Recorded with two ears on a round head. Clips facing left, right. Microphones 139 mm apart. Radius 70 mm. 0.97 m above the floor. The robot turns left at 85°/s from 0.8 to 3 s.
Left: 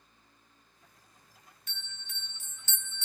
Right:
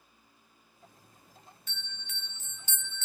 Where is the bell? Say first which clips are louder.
Right 2 dB; 80° right, 1.0 m; by 3.0 s 165° left, 1.0 m.